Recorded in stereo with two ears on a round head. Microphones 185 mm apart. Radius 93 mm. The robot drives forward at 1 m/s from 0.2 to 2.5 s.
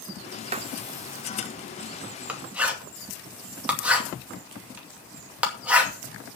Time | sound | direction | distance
0.5 | writing | 30° right (ahead or behind) | 0.6 m